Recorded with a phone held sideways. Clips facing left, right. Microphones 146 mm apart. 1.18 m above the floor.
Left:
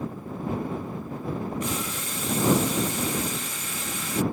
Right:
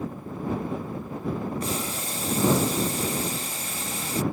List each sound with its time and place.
1.6 s boiling: 35° right (ahead or behind)